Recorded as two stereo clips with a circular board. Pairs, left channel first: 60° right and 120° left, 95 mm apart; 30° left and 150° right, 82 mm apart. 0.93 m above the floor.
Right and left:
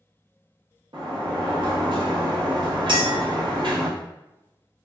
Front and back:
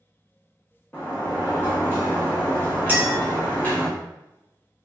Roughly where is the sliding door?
Left.